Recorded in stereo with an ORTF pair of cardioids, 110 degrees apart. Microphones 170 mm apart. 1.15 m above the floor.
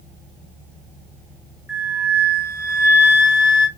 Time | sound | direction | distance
1.7 | a flute | 15° right | 1.1 m